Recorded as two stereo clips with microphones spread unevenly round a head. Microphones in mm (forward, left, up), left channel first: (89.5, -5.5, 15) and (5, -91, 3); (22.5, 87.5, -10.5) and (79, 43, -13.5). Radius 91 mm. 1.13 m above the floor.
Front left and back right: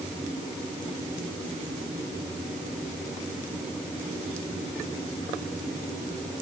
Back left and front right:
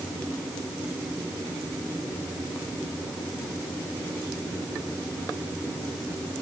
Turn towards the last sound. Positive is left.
No sound to turn to.